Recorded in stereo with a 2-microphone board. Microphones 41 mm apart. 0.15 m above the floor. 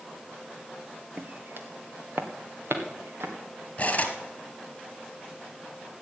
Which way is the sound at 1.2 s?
40° right (ahead or behind).